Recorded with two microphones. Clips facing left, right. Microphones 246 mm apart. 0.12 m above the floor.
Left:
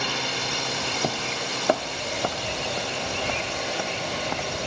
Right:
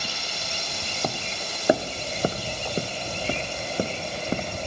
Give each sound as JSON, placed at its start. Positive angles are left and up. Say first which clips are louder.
{"t": 0.0, "sound": "a drone", "louder": "left 7 dB", "side_deg": 85}
{"t": 1.0, "sound": "footsteps", "louder": "even", "side_deg": 10}